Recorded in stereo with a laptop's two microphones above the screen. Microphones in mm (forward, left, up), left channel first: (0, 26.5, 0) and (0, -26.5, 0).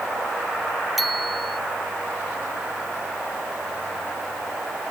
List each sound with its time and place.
1.0 s a bicycle bell: centre (ahead or behind)